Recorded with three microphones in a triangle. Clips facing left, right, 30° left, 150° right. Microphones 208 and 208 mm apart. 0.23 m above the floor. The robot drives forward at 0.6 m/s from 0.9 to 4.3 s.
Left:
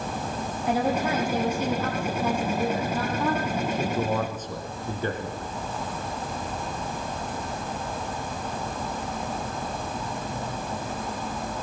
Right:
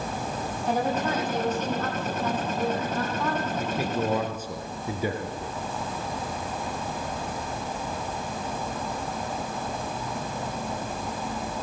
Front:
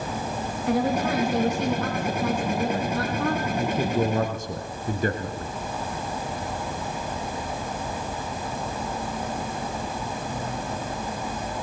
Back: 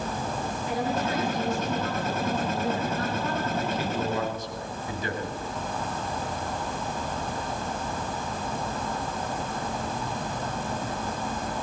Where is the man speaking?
10° right, 3 m.